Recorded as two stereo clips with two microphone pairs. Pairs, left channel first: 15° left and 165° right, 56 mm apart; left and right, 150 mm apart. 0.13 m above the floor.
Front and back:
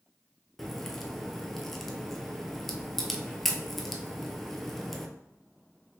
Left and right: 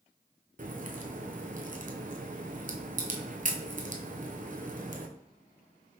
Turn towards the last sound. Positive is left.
turn(degrees=-65)